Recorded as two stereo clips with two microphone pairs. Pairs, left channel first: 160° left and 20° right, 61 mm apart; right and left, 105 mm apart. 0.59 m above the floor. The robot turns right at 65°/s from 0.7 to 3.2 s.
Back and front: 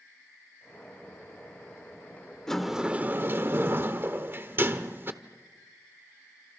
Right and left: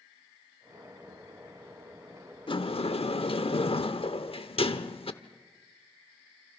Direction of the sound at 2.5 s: 120° right.